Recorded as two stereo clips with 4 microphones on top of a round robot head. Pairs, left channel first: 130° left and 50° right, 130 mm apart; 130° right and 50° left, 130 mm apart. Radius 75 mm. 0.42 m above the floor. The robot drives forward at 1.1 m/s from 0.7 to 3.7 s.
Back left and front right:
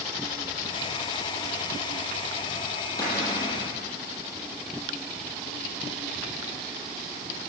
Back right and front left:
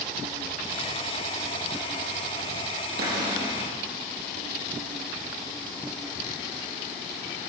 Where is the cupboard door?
65° left, 8.5 m; by 3.5 s 70° left, 8.5 m.